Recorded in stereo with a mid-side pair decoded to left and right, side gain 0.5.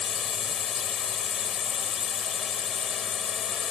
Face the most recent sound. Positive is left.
turn(degrees=50)